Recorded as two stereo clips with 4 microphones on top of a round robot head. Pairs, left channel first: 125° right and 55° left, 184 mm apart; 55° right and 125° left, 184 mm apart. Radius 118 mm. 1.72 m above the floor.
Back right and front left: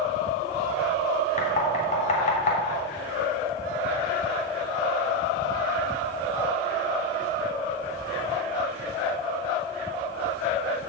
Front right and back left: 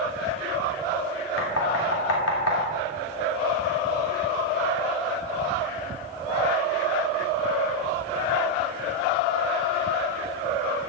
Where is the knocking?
70° right, 3 m.